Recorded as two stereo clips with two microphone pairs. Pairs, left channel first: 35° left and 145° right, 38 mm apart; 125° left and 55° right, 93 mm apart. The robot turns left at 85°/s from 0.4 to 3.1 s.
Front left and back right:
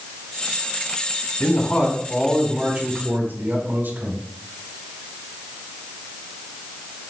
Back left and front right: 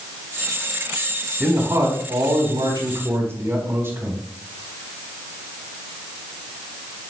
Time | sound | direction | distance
1.4 | a man speaking | 25° left | 4 m